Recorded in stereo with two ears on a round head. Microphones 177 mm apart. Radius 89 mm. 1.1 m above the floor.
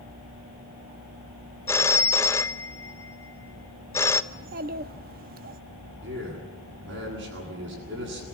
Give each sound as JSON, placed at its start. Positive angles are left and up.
{"t": 1.7, "sound": "a phone ringing", "side_deg": 15, "distance_m": 0.6}
{"t": 4.3, "sound": "a child speaking", "side_deg": -45, "distance_m": 0.9}
{"t": 6.0, "sound": "a man speaking", "side_deg": -65, "distance_m": 9.5}